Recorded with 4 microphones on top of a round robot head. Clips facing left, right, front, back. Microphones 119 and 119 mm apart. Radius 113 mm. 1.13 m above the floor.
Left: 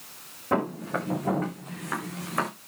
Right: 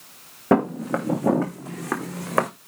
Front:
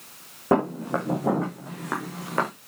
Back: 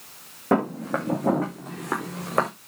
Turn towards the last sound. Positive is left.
turn(degrees=-110)